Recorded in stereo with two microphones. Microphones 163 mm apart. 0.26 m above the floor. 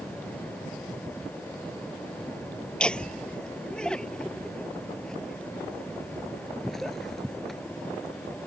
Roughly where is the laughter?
Centre.